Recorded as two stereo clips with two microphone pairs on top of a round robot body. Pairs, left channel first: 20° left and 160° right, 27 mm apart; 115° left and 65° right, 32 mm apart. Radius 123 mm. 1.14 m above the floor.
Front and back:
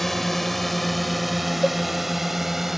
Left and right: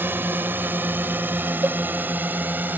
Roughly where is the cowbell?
Right.